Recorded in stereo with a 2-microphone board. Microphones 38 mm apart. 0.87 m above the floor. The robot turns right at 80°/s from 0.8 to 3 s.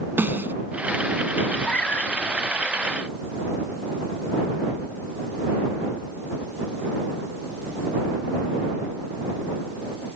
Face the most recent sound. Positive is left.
turn(degrees=135)